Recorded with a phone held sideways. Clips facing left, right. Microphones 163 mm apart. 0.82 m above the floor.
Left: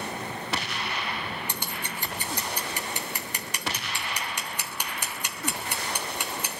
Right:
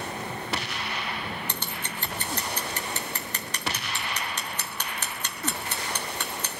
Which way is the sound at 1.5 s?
10° left (ahead or behind).